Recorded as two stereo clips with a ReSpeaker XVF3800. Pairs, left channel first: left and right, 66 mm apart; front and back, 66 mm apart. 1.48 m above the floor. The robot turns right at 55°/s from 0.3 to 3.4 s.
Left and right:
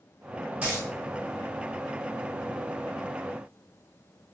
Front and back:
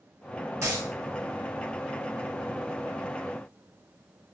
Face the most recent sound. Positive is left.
turn(degrees=0)